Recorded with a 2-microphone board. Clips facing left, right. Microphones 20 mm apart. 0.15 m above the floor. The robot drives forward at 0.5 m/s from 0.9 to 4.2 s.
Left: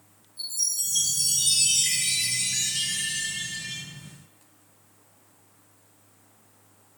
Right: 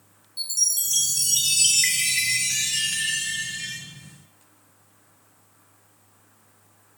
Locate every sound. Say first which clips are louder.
0.4 s a chime: right 4 dB; 65° right (ahead or behind), 2 m; by 3.8 s 75° right (ahead or behind), 2 m